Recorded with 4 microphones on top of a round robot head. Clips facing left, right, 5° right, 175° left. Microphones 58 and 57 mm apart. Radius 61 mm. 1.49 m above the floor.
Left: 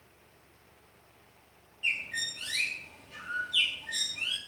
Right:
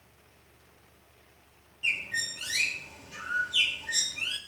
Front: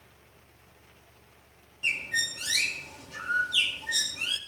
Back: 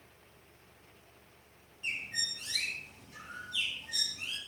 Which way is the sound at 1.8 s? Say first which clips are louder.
Right 2 dB, front 9 dB; 5° right.